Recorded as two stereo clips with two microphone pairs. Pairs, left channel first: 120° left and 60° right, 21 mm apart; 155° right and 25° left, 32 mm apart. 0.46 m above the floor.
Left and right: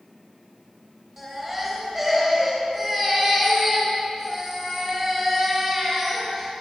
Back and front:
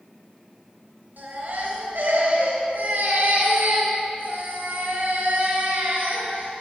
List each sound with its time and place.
1.2 s a baby crying: straight ahead, 4 m